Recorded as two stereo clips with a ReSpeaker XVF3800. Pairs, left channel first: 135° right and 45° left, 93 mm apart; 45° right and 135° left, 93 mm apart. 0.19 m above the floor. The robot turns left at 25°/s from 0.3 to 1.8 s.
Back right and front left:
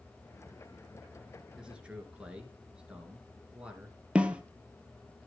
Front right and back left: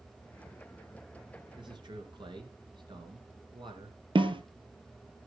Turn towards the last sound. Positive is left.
turn(degrees=120)